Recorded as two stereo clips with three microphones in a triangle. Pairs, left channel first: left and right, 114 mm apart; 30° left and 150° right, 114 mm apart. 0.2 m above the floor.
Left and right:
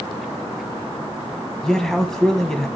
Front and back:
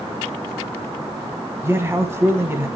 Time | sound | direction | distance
1.6 | a man speaking | 170° left | 1.2 m